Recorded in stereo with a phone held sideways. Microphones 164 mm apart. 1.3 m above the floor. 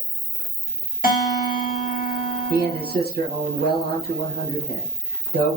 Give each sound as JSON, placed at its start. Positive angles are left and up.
{"t": 0.0, "sound": "an insect", "side_deg": 45, "distance_m": 1.7}
{"t": 1.0, "sound": "a guitar", "side_deg": 60, "distance_m": 1.6}
{"t": 2.5, "sound": "a man speaking", "side_deg": -75, "distance_m": 0.7}